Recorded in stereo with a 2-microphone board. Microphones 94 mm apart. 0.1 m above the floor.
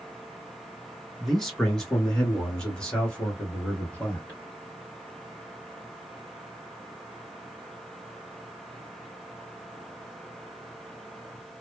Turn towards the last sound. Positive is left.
turn(degrees=15)  # may be behind; listen again after turning